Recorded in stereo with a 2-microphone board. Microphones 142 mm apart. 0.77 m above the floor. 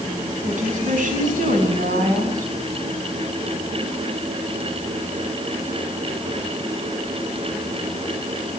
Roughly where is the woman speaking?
Right.